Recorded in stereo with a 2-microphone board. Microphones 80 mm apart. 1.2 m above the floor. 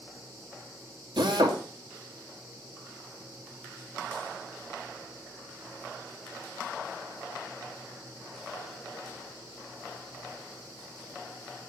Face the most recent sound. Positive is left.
turn(degrees=-75)  # may be behind; listen again after turning